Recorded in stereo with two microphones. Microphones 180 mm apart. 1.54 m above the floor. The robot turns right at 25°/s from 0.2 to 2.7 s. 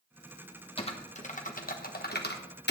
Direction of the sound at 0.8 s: 30° left (ahead or behind).